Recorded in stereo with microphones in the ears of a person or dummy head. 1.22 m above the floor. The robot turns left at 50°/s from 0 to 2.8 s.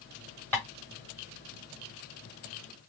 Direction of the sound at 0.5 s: 10° left (ahead or behind).